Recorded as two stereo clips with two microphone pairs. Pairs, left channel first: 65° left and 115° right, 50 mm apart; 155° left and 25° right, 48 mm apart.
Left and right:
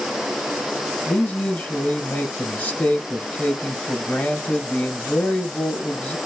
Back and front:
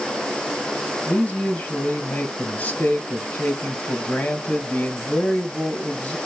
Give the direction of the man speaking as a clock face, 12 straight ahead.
9 o'clock.